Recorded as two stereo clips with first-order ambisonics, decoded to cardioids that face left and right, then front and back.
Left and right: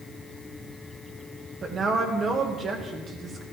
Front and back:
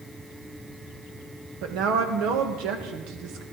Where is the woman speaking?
155° right, 1.6 m.